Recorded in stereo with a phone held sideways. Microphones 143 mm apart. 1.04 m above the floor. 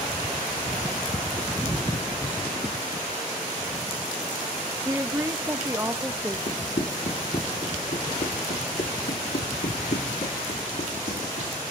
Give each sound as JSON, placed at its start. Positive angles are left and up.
{"t": 4.8, "sound": "a woman speaking", "side_deg": -20, "distance_m": 1.0}
{"t": 6.5, "sound": "running footsteps", "side_deg": 55, "distance_m": 3.0}